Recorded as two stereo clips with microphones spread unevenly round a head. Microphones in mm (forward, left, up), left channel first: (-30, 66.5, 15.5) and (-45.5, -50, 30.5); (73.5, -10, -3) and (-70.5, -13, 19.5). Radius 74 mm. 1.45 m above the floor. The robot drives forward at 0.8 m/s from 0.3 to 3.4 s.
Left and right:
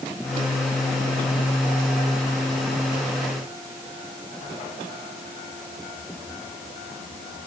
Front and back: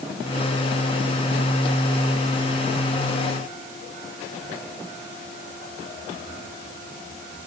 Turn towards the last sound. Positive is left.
No sound to turn to.